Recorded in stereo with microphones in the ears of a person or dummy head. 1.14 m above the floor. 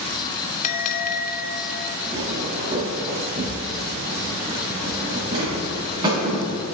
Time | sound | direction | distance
0.6 | a bell | 45° left (ahead or behind) | 0.7 m
2.1 | footsteps | 30° right (ahead or behind) | 3.5 m